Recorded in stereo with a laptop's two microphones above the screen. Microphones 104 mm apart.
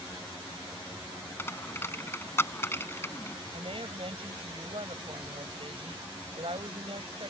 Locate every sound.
1.4 s a dropped coin: 25° left (ahead or behind)
3.5 s a woman speaking: 60° right (ahead or behind)